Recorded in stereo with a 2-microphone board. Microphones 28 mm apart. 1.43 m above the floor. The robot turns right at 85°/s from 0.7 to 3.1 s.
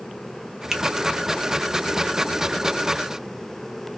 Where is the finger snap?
10° right (ahead or behind), 0.9 m; by 0.8 s centre (ahead or behind), 0.9 m.